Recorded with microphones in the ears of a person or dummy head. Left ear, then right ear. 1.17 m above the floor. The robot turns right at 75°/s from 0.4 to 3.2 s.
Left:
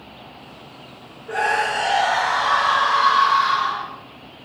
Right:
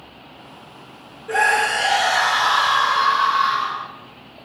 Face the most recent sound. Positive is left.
turn(degrees=15)